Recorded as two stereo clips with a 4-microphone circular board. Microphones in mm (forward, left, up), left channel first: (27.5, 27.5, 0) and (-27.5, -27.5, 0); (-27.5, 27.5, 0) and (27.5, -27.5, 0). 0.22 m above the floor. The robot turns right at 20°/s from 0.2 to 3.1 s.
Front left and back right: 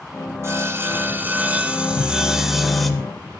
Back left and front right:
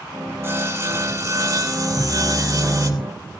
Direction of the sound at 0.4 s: 95° right.